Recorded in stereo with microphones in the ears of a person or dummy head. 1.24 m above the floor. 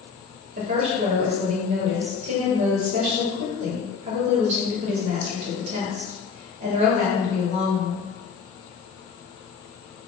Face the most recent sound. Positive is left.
turn(degrees=-55)  # may be behind; listen again after turning